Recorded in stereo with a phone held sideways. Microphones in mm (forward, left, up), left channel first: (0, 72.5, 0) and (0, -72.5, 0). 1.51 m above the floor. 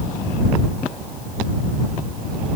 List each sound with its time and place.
Only background noise.